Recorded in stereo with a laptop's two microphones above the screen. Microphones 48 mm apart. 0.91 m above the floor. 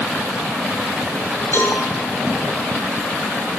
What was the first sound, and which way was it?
A cowbell, 55° left (ahead or behind).